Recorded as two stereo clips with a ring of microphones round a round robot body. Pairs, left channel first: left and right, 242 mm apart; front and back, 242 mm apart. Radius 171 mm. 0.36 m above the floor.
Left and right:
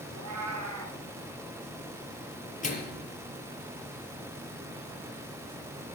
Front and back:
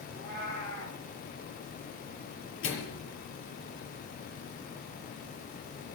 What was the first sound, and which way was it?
A cat meowing, 85° right.